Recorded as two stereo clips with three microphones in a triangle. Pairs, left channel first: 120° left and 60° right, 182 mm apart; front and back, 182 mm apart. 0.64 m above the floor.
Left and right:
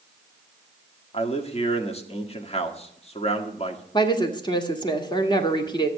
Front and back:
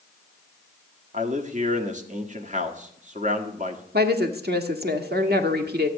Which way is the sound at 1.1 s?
160° left.